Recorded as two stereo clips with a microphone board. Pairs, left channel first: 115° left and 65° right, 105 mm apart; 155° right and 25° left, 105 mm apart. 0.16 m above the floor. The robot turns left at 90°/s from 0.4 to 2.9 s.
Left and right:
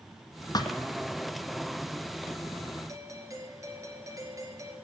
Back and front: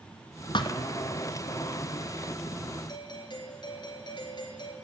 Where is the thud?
165° left, 1.2 m; by 0.8 s 145° left, 1.2 m.